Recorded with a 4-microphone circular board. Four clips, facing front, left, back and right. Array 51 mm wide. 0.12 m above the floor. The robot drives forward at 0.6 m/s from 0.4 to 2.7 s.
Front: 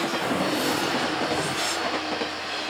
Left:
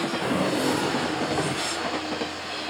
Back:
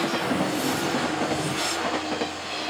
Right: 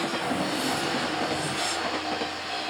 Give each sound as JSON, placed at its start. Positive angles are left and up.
{"t": 0.2, "sound": "a drawer", "azimuth_deg": 50, "distance_m": 3.0}